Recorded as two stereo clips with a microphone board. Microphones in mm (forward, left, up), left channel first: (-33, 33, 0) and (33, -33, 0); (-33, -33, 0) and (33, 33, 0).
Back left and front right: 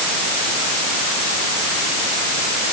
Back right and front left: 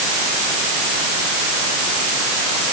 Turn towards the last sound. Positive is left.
No sound to turn to.